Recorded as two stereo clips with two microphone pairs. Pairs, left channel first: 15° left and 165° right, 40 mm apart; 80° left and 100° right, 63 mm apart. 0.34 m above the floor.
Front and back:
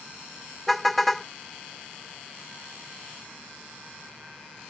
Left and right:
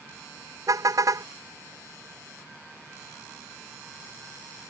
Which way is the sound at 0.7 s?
70° right.